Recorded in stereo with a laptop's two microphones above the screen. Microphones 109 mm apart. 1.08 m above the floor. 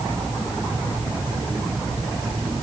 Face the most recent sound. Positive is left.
No sound to turn to.